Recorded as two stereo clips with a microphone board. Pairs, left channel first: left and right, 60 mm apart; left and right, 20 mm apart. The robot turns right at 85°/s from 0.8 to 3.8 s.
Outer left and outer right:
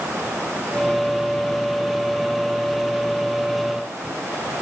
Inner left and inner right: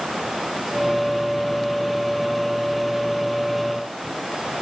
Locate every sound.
Only background noise.